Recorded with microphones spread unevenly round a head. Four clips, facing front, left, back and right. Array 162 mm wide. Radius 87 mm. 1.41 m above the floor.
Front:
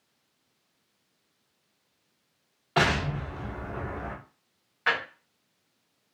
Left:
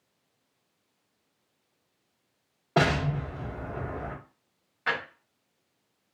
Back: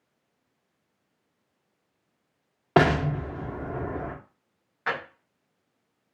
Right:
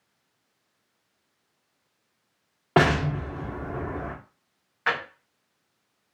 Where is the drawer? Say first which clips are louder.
Right 3 dB, front 2 dB; 65° right, 0.7 m.